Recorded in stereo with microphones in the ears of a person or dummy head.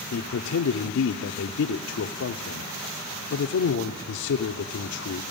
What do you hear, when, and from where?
0.1 s a man speaking: 70° left (ahead or behind), 0.6 m